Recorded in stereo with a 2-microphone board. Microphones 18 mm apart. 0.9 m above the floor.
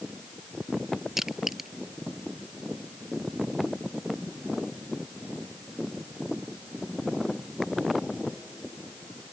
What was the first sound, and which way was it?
Crushing, 15° right (ahead or behind).